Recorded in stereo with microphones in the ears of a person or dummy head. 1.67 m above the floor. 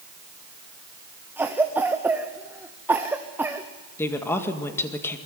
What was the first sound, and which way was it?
A cough, 15° right (ahead or behind).